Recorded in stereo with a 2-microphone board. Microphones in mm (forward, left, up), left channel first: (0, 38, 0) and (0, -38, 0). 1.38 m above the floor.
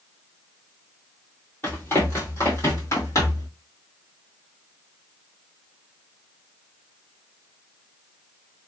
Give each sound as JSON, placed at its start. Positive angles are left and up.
{"t": 1.6, "sound": "running footsteps", "side_deg": 25, "distance_m": 1.8}